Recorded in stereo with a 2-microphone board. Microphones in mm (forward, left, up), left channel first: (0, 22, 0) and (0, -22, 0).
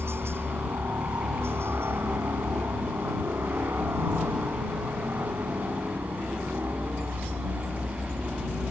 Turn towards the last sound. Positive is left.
turn(degrees=-60)  # may be behind; listen again after turning